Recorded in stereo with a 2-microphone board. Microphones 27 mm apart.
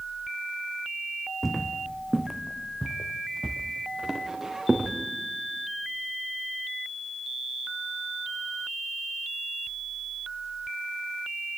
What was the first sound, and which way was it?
Footsteps, centre (ahead or behind).